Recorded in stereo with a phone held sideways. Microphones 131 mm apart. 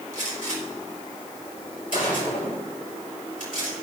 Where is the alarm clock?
I don't hear an alarm clock.